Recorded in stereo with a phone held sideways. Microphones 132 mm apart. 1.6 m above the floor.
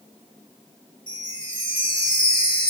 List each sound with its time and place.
1.1 s a chime: 40° left (ahead or behind), 2.5 m